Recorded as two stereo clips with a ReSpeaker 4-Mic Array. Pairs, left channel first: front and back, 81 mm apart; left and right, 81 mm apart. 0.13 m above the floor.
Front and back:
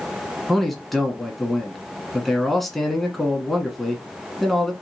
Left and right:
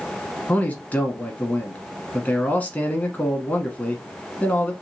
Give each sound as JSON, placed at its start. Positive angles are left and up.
{"t": 0.5, "sound": "a man speaking", "azimuth_deg": 85, "distance_m": 1.2}